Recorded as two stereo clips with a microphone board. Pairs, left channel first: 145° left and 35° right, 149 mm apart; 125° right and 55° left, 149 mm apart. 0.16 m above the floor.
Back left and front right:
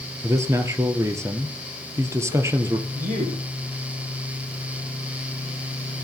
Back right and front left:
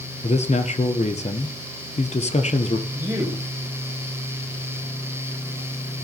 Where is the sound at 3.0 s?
20° right, 6 m.